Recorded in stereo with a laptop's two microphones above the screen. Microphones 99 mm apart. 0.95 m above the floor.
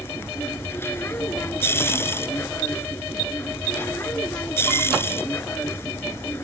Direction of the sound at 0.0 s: 25° left (ahead or behind).